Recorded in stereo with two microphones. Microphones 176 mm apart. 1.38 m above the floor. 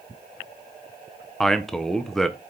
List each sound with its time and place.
1.4 s a man speaking: centre (ahead or behind), 0.6 m